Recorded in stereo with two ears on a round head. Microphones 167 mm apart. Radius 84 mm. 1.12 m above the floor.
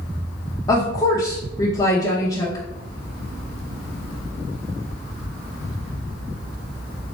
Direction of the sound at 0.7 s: 20° left (ahead or behind).